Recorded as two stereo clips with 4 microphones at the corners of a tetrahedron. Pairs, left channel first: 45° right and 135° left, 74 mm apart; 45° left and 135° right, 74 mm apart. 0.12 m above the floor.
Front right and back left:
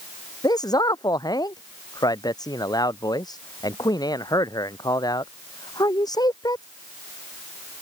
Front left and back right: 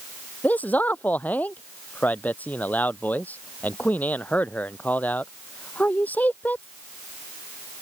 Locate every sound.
0.4 s a man speaking: 20° right